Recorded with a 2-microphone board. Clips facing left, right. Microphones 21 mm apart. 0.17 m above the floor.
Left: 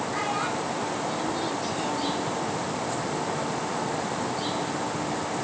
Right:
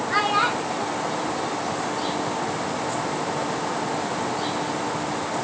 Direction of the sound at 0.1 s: 50° right (ahead or behind).